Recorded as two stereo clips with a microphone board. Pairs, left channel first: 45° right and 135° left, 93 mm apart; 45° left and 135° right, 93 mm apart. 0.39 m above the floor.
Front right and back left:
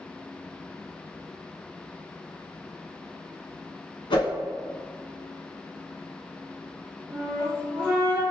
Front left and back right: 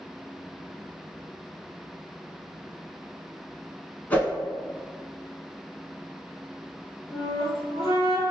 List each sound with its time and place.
4.1 s a whoosh: 25° right, 0.8 m
7.1 s a flute: 30° left, 1.5 m